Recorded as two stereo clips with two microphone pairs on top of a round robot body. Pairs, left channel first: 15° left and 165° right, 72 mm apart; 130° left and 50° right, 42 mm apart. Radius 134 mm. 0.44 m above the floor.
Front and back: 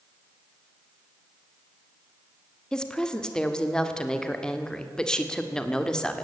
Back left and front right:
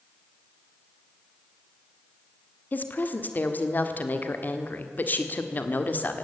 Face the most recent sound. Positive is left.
turn(degrees=90)